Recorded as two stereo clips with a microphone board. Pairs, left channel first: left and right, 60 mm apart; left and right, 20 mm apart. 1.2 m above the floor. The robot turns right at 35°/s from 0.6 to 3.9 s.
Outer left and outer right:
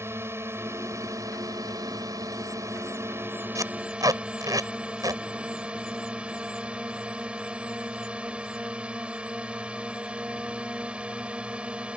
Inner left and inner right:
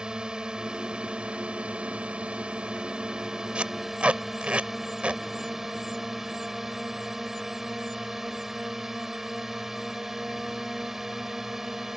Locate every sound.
0.0 s a drone: 135° right; by 12.0 s 20° right
3.5 s tape being pulled: 65° right (ahead or behind); by 5.2 s 75° right (ahead or behind)